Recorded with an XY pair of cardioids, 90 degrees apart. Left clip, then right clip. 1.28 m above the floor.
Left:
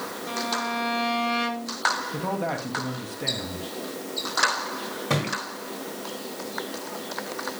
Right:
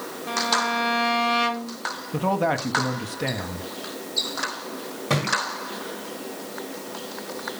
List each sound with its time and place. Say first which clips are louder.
0.3 s a violin: right 6 dB; 35° right, 1.4 m
2.1 s a man speaking: right 5 dB; 50° right, 2.5 m
5.1 s a thud: right 4 dB; 10° right, 5 m